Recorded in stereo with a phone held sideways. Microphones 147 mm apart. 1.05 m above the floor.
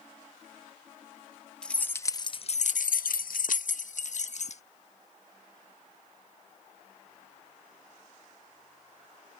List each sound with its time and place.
1.6 s keys jangling: 5° left (ahead or behind); by 4.6 s 55° left (ahead or behind)